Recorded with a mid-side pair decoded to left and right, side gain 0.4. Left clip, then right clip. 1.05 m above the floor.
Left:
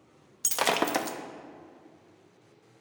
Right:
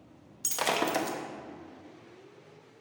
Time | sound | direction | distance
0.4 | breaking glass | 45° left | 0.7 m